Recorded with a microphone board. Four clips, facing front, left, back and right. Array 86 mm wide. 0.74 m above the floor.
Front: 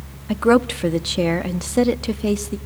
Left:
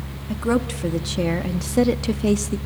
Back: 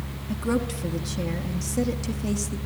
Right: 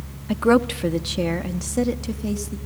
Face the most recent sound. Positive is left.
turn(degrees=50)